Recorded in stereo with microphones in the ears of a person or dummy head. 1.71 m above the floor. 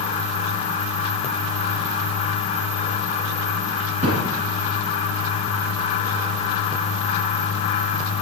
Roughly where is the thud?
Right.